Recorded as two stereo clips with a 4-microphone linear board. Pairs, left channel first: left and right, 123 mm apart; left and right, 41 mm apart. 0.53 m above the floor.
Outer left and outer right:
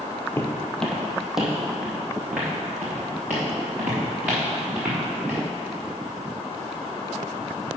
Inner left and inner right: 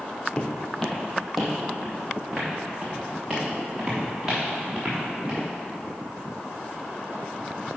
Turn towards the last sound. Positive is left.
turn(degrees=-15)  # may be behind; listen again after turning